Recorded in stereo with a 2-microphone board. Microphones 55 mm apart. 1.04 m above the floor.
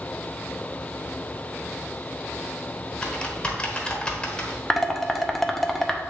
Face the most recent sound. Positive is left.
turn(degrees=5)  # may be behind; listen again after turning